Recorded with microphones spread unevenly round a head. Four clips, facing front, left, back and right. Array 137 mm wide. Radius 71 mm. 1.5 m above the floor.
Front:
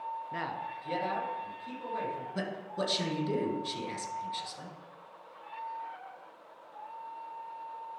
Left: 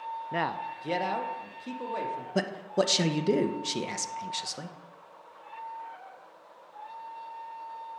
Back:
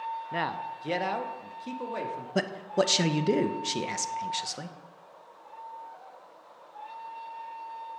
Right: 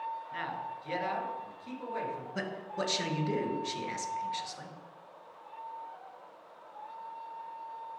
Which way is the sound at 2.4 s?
135° left.